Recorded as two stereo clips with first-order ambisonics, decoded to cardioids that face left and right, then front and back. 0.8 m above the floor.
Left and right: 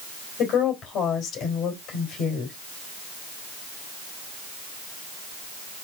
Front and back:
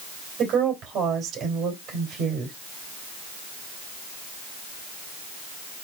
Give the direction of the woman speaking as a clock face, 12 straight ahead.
8 o'clock.